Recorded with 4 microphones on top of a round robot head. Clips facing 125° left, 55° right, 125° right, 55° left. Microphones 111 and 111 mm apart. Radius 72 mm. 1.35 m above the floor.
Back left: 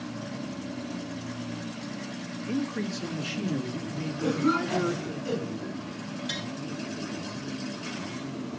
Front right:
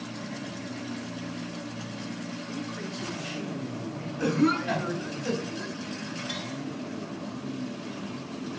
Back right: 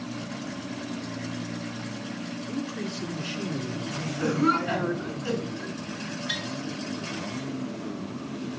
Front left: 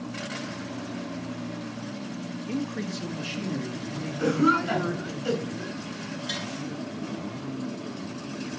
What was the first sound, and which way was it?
A man speaking, 90° left.